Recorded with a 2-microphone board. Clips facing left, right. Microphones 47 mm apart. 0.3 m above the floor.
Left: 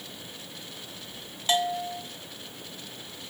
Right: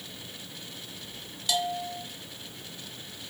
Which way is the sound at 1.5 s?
40° left (ahead or behind).